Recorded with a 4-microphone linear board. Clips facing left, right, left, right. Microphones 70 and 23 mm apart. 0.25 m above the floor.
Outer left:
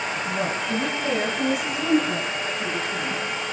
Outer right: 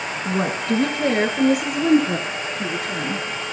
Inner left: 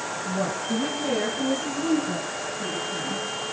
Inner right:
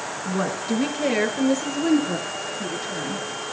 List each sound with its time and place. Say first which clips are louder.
0.2 s a woman speaking: outer right 6 dB, inner right 3 dB; 70° right (ahead or behind), 4.5 m